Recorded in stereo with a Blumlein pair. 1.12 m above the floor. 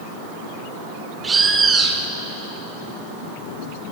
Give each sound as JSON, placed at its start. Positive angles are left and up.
{"t": 1.2, "sound": "a bird", "azimuth_deg": -15, "distance_m": 2.0}